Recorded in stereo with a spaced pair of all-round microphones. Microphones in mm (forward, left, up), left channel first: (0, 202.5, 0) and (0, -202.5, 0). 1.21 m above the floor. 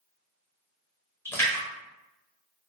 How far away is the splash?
About 1.1 m.